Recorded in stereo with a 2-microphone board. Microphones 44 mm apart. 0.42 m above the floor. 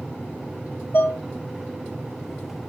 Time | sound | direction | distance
0.9 | dishes clattering | 50° left (ahead or behind) | 2.0 m